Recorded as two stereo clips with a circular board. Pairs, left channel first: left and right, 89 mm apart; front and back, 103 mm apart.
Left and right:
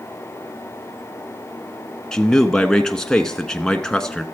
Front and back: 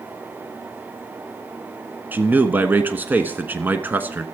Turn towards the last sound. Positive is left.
turn(degrees=160)